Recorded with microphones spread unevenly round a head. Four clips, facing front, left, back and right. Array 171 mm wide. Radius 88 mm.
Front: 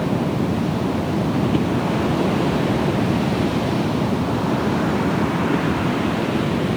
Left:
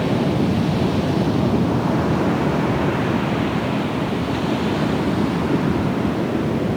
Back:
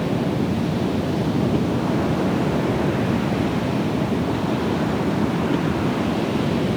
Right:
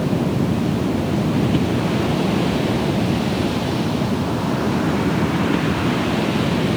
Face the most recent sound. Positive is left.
No sound to turn to.